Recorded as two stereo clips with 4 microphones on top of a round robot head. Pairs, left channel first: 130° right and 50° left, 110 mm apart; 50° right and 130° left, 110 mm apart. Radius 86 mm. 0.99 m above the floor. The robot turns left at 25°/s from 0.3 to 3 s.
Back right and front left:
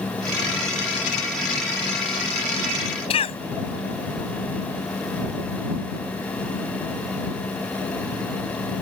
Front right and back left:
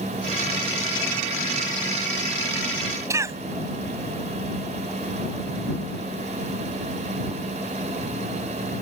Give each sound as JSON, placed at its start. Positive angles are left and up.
{"t": 3.1, "sound": "a cough", "azimuth_deg": -165}